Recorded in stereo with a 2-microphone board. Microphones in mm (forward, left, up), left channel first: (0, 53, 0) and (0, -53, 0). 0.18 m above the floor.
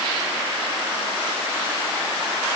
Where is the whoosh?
No whoosh in this recording.